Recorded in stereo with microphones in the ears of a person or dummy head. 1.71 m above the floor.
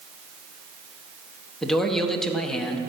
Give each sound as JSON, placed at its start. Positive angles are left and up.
{"t": 1.6, "sound": "a man speaking", "side_deg": 0, "distance_m": 1.2}